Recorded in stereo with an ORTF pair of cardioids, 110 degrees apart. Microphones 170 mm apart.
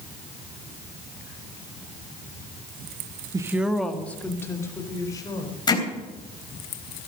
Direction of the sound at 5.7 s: 25° left.